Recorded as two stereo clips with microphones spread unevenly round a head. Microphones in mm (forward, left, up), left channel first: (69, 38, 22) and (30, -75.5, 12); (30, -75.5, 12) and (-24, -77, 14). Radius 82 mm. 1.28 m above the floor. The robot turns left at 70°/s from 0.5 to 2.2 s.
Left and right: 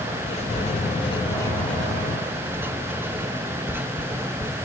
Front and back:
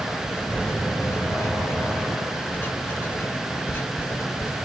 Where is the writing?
80° left, 1.3 m; by 4.5 s 35° right, 1.3 m.